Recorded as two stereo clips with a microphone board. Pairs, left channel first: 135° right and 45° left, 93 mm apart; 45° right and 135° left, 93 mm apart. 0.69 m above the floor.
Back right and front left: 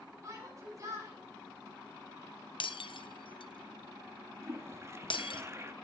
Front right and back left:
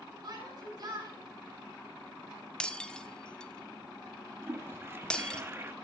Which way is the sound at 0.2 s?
95° left.